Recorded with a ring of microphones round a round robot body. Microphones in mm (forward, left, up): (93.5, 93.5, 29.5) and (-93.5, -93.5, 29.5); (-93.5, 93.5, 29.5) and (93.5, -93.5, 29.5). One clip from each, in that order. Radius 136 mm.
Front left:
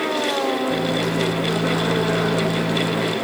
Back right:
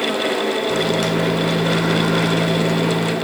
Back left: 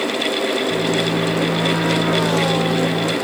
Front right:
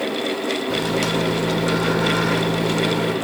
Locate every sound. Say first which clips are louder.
0.7 s a microwave: back right 3 dB, back left 2 dB; 70° right, 1.5 m